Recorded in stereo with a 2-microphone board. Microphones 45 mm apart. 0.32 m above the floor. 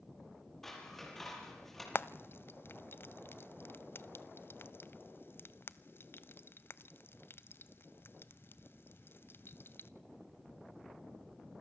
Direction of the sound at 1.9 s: 60° left (ahead or behind).